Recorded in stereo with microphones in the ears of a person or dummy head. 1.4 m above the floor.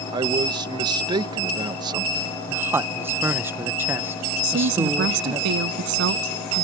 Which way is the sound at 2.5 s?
10° right (ahead or behind).